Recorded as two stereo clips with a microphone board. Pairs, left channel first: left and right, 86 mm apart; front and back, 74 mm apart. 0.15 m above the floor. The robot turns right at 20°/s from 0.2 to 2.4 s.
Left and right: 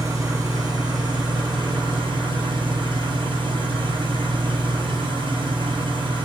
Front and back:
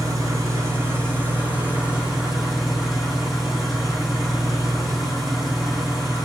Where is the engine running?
140° right, 2.0 m; by 6.3 s 100° right, 2.0 m.